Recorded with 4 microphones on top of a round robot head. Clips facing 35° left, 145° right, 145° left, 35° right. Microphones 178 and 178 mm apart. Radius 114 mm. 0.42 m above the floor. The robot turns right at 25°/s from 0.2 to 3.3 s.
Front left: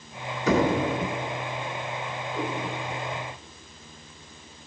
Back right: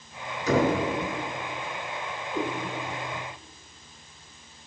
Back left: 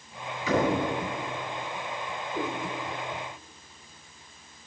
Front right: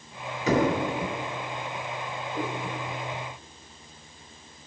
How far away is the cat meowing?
About 4.5 m.